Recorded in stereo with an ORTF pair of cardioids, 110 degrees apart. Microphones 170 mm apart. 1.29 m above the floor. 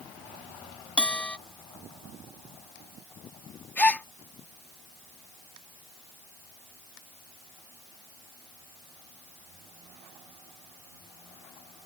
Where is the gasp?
10° left.